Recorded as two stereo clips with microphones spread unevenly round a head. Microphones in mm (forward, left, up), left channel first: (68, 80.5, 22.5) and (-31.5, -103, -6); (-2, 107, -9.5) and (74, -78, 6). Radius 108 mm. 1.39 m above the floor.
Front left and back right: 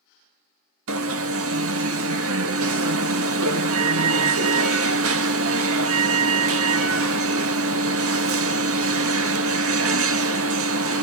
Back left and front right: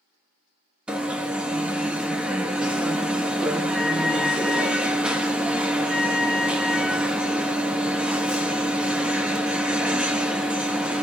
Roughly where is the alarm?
Behind right.